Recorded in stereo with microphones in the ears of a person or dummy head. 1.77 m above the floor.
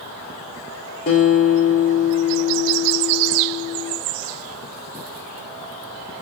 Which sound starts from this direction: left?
A guitar, at 1.1 s.